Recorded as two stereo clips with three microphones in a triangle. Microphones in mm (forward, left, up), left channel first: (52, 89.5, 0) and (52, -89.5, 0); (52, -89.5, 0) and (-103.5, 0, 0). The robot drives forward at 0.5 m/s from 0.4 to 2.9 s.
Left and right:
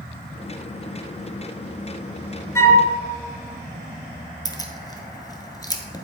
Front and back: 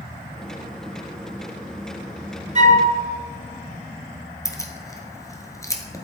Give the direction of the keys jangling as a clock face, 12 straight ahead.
11 o'clock.